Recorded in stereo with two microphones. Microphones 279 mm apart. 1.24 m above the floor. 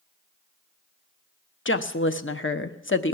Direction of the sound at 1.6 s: 45° left (ahead or behind).